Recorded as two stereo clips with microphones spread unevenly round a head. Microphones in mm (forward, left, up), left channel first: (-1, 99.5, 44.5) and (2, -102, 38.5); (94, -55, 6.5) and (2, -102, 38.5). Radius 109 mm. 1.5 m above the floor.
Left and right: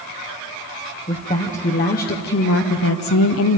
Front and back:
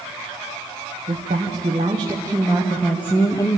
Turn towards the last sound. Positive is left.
turn(degrees=80)